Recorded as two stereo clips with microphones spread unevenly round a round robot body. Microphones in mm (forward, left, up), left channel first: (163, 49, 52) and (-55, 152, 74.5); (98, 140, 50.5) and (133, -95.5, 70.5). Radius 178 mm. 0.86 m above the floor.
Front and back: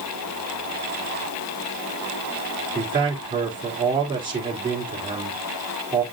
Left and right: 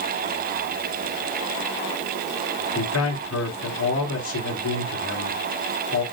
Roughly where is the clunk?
I don't hear a clunk.